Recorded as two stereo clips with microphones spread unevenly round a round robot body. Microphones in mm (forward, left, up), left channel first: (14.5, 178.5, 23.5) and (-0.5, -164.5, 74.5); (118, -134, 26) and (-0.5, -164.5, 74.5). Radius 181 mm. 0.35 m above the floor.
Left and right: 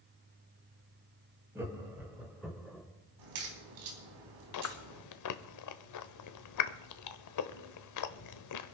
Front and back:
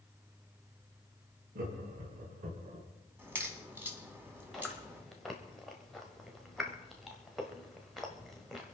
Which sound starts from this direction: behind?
Laughter, at 1.6 s.